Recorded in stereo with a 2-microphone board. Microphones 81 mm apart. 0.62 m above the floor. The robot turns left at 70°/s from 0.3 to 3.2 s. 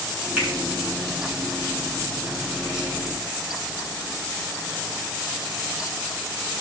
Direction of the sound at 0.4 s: 20° right (ahead or behind).